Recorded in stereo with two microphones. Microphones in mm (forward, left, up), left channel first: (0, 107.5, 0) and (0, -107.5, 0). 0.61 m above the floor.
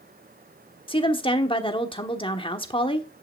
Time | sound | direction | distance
0.9 | a woman speaking | 25° left (ahead or behind) | 1.2 m